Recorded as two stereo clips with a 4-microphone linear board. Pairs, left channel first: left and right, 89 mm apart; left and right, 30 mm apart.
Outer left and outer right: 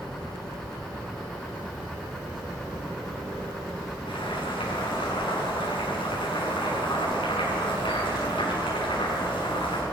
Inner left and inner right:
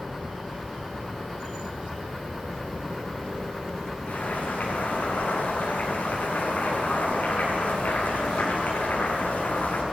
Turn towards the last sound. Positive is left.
turn(degrees=85)